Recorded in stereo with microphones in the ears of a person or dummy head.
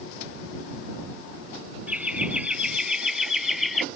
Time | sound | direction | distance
1.9 | laughter | 10° right (ahead or behind) | ?